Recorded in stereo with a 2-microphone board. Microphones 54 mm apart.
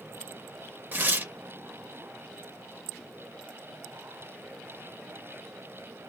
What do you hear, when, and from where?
0.9 s tearing paper: 35° right (ahead or behind), 0.6 m